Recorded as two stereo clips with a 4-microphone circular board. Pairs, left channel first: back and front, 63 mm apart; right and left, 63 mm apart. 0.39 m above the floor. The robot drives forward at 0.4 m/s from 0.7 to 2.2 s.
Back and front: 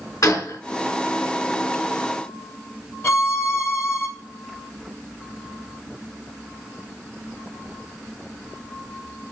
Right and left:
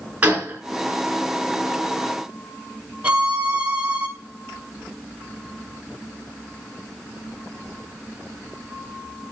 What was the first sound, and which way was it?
A gunshot, 155° left.